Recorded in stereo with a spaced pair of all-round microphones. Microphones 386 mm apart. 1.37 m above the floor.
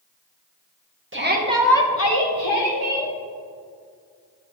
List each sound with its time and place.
1.1 s a shout: 30° right (ahead or behind), 1.4 m; by 3.1 s 80° left, 2.0 m